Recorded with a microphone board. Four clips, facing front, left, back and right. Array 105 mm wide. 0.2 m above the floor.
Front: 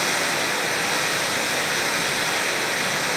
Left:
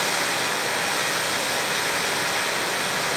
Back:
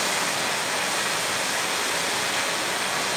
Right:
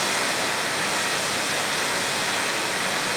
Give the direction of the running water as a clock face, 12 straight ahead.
12 o'clock.